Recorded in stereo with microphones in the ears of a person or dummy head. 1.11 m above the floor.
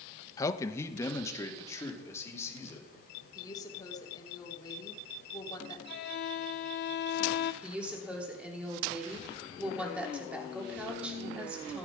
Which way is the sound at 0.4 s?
20° left (ahead or behind).